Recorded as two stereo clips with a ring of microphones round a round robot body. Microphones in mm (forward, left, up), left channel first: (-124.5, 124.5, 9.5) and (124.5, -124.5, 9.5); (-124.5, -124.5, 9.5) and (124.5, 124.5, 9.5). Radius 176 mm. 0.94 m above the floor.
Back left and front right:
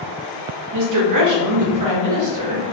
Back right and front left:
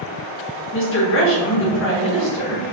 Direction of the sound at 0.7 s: 80° right.